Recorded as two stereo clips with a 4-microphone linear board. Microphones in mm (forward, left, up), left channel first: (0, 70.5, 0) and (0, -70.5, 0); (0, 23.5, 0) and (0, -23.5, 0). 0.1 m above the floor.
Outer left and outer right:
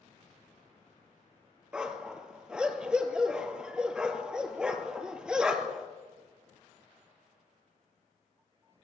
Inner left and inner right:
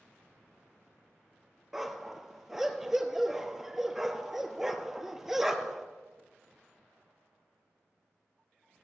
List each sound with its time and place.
1.7 s a dog barking: 5° right (ahead or behind), 1.1 m